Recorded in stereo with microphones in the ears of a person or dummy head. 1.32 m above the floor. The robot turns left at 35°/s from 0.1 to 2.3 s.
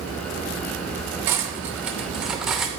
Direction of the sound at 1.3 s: 15° right (ahead or behind).